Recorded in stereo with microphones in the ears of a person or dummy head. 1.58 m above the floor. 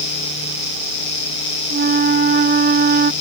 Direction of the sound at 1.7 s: 45° right (ahead or behind).